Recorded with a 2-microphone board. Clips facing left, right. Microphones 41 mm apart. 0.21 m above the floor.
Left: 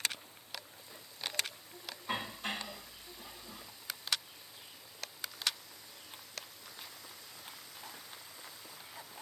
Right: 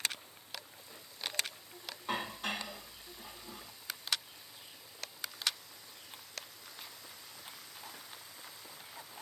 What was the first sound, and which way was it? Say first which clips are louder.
Dishes clattering: right 1 dB; 60° right (ahead or behind).